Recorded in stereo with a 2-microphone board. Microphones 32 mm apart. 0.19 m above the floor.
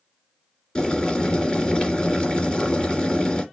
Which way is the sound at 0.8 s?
20° left (ahead or behind).